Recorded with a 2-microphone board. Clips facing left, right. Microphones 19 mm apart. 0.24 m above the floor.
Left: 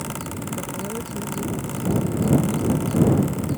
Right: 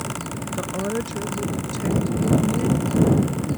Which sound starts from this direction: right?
A woman speaking, at 0.6 s.